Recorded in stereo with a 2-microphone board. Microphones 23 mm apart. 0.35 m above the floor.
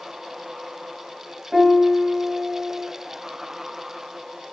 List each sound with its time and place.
1.5 s a piano: 25° right (ahead or behind), 0.9 m